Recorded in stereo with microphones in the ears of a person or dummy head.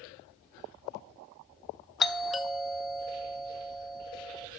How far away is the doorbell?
About 0.5 m.